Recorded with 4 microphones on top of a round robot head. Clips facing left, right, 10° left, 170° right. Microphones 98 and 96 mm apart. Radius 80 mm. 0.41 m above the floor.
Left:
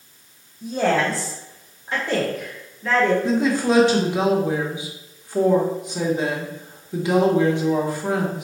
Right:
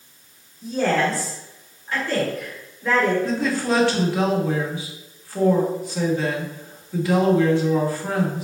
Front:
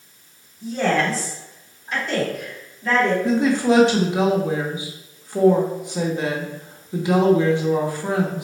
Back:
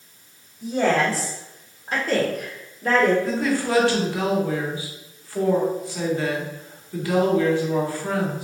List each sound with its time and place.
0.6 s a woman speaking: 120° left, 2.0 m; by 3.1 s 170° right, 1.7 m
3.2 s a woman speaking: 45° left, 1.2 m